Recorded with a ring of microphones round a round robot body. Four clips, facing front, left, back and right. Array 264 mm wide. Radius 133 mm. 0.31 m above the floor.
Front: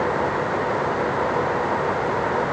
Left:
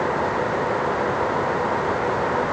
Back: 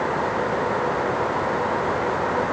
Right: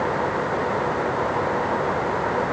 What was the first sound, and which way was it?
Only background noise.